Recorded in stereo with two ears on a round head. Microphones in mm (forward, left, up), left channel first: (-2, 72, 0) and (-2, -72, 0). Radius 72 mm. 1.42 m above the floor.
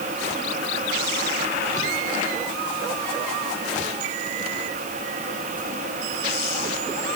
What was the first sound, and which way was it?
Only background noise.